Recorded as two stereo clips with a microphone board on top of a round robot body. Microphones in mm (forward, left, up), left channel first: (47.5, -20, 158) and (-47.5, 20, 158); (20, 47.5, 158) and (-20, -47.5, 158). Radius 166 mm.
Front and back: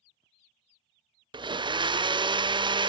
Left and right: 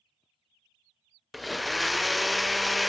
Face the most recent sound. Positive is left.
turn(degrees=160)